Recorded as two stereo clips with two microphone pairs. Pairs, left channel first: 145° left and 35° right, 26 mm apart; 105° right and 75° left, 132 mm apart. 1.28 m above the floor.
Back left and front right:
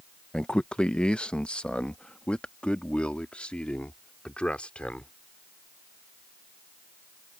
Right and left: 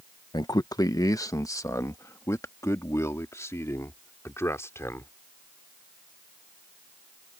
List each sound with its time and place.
0.3 s a man speaking: 160° right; by 5.1 s 175° right